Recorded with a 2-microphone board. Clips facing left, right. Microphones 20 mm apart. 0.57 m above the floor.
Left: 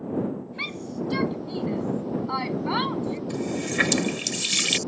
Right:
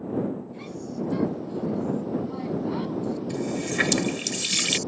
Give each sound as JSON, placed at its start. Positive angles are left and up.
{"t": 0.6, "sound": "a shout", "side_deg": 65}
{"t": 3.3, "sound": "a running tap", "side_deg": 10}